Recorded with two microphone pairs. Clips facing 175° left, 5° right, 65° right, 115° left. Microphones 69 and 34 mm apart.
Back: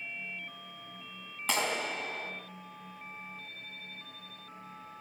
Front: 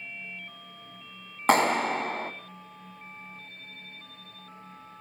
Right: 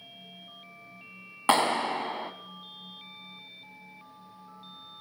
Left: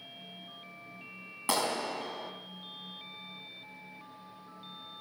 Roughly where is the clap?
Ahead right.